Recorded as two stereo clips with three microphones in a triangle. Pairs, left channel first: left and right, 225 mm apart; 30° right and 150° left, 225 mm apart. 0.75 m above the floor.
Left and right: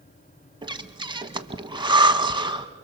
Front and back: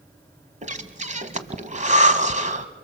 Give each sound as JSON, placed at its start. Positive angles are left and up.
{"t": 0.6, "sound": "breathing", "azimuth_deg": -155, "distance_m": 1.2}